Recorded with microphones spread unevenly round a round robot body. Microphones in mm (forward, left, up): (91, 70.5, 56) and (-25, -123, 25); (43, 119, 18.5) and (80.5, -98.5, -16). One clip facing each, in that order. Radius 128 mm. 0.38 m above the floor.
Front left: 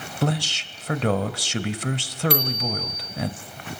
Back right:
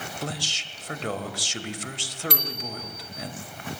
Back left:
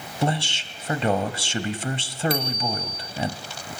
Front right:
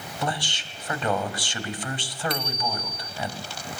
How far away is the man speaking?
About 2 m.